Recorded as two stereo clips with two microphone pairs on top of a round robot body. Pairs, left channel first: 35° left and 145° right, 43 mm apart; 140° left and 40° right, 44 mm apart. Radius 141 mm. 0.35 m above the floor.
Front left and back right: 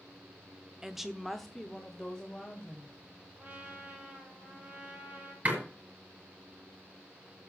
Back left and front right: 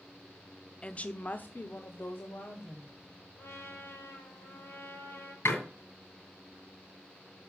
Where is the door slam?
160° left, 5.5 m.